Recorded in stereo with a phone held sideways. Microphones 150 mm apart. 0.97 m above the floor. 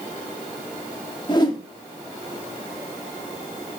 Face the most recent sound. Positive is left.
turn(degrees=30)  # may be behind; listen again after turning